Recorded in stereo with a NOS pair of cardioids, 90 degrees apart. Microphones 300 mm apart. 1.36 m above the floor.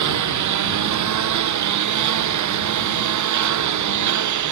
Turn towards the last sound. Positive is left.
turn(degrees=-70)